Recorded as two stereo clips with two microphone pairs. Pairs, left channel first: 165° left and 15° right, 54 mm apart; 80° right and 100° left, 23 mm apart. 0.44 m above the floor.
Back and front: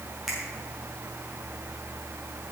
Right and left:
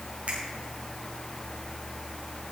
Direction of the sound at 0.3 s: 70° left.